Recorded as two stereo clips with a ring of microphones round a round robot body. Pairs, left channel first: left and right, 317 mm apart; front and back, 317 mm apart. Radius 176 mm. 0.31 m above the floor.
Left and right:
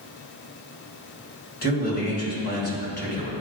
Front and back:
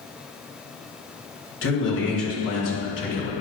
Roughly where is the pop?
No pop in this recording.